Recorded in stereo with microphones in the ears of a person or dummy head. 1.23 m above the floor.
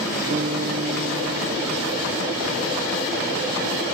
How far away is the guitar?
About 0.9 m.